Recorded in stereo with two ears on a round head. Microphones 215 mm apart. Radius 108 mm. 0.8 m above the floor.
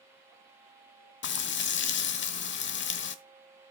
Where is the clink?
No clink in this recording.